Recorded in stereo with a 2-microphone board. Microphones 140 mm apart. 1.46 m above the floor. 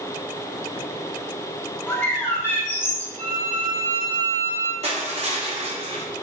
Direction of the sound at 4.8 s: 45° right (ahead or behind).